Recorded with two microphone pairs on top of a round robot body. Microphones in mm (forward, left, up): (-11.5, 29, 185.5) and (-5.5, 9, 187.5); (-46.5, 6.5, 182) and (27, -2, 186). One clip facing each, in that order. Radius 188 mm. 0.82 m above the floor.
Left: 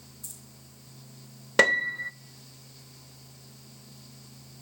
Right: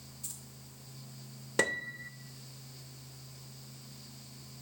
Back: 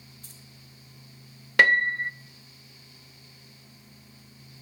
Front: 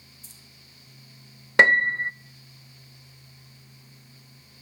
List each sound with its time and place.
0.2 s keys jangling: 145° right, 3 m
1.6 s a piano: 60° left, 0.5 m